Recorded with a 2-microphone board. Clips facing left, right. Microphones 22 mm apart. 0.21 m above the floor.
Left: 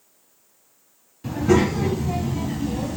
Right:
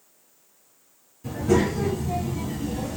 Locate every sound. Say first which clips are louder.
1.2 s a child speaking: left 3 dB; 45° left (ahead or behind), 1.6 m; by 3.0 s 10° left (ahead or behind), 1.0 m